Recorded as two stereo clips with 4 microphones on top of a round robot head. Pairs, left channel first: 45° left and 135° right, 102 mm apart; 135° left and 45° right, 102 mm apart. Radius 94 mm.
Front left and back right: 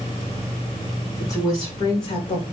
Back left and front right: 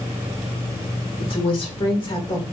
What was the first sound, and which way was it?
A woman speaking, 105° left.